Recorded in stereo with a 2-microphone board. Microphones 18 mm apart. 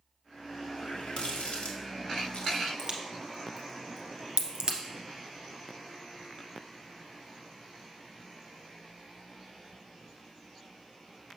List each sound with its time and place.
0.8 s a running tap: 70° left (ahead or behind), 1.3 m
2.8 s a crack: 50° right (ahead or behind), 1.5 m